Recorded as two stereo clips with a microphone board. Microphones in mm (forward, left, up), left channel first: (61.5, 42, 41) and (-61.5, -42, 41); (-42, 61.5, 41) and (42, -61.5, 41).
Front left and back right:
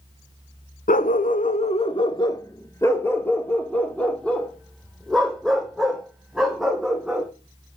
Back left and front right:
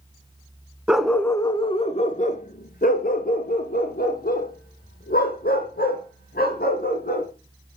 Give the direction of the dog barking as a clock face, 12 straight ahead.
11 o'clock.